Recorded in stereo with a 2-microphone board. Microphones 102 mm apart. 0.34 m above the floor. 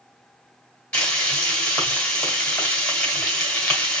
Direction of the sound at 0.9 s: 10° left (ahead or behind).